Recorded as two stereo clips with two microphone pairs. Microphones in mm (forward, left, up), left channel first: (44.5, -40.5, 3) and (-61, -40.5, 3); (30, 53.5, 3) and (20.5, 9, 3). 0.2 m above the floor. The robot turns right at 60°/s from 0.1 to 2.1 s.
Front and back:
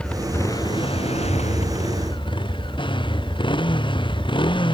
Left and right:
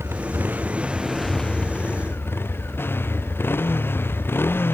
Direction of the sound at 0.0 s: 80° right.